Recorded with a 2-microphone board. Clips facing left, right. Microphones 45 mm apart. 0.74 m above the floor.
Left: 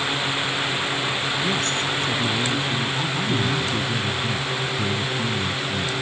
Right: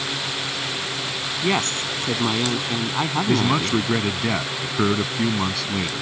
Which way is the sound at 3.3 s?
80° right.